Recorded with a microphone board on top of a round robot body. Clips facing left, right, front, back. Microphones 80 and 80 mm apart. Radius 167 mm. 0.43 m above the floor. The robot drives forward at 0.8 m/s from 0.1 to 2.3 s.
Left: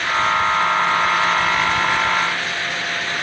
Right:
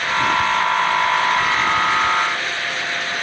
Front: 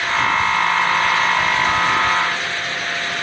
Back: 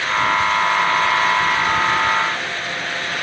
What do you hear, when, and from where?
Only background noise.